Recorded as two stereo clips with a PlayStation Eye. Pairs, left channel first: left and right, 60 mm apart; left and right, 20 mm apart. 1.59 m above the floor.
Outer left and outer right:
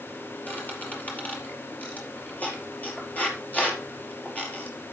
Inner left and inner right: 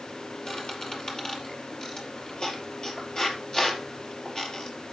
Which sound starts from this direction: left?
A squeak, at 0.5 s.